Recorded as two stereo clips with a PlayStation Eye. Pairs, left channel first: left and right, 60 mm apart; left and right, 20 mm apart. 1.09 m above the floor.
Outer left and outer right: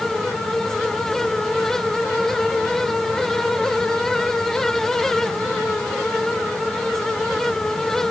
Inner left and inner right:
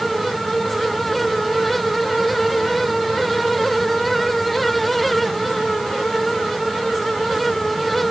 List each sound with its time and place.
Only background noise.